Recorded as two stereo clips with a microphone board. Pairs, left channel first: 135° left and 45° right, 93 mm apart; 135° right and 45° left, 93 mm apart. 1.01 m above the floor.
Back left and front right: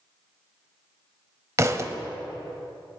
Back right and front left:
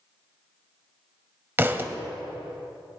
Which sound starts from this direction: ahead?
A thud, at 1.6 s.